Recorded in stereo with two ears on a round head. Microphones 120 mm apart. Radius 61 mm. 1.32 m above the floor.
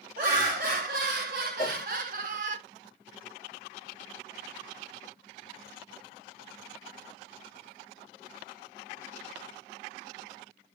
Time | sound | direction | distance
0.2 | laughter | 70° right (ahead or behind) | 2 m
1.6 | a whoosh | 60° right (ahead or behind) | 2.5 m